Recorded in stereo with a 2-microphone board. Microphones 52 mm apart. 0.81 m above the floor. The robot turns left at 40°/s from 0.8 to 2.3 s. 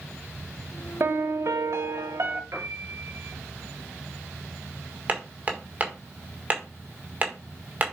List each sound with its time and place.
1.0 s a piano: 60° right, 0.9 m; by 2.4 s 115° right, 0.9 m
2.5 s a piano: 80° right, 3 m
5.1 s hammering: 30° right (ahead or behind), 1.8 m